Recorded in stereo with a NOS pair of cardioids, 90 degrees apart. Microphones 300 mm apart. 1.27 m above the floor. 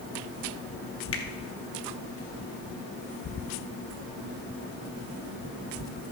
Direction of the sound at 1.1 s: 45° left.